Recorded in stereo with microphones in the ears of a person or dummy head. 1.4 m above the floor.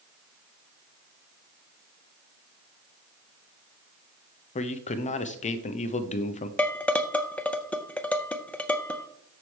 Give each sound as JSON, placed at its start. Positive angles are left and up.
{"t": 4.5, "sound": "a man speaking", "side_deg": 35, "distance_m": 0.6}
{"t": 6.6, "sound": "dishes clattering", "side_deg": 10, "distance_m": 0.5}